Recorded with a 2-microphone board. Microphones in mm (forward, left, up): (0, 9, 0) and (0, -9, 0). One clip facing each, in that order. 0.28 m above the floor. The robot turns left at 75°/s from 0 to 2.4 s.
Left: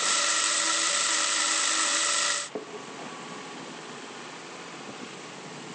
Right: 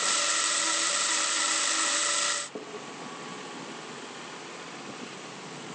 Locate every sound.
2.5 s a splash: 75° left (ahead or behind), 4 m